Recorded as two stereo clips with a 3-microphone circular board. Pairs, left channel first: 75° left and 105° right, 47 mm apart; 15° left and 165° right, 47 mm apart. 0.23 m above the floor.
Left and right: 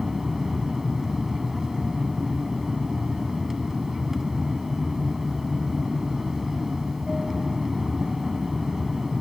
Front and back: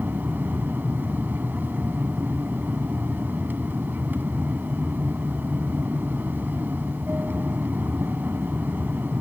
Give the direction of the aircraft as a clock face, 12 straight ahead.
6 o'clock.